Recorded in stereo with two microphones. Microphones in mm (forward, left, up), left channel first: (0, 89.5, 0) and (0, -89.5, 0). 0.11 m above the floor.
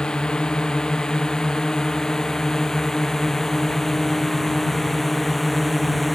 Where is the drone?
5° left (ahead or behind); by 6.2 s centre (ahead or behind).